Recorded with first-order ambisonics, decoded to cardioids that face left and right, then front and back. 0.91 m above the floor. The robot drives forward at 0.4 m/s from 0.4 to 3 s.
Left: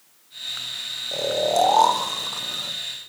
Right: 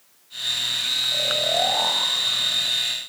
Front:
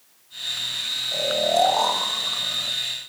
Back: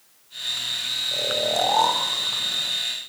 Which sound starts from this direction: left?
Snoring, at 1.1 s.